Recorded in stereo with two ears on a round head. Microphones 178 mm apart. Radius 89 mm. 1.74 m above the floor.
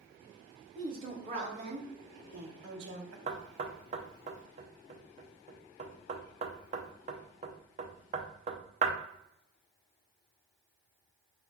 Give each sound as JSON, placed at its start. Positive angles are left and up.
{"t": 0.8, "sound": "a woman speaking", "side_deg": -20, "distance_m": 2.0}
{"t": 3.3, "sound": "knocking", "side_deg": -35, "distance_m": 0.7}